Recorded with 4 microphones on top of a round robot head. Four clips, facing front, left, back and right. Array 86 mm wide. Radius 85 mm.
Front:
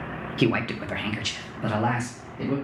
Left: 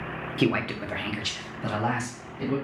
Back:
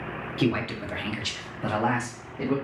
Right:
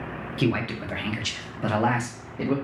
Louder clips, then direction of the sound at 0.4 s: Even, front 2 dB; 30° left.